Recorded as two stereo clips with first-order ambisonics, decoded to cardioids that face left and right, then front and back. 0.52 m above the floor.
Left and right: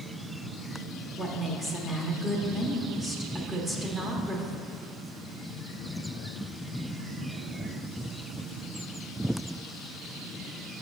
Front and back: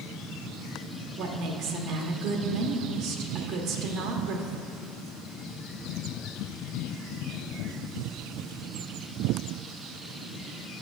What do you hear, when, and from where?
1.2 s a woman speaking: 170° right, 1.0 m